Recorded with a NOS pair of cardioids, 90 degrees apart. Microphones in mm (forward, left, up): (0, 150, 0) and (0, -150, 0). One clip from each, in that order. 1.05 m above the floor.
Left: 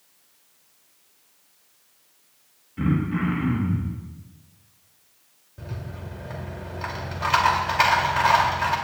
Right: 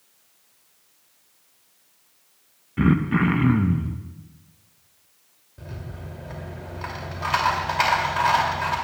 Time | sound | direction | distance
2.8 | throat clearing | 45° right | 1.0 m
5.6 | a rattle | 10° left | 2.5 m